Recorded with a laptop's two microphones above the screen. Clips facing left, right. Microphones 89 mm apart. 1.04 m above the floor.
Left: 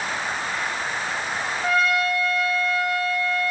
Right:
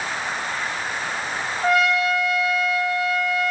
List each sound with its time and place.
1.6 s a trumpet: 25° right (ahead or behind), 6 m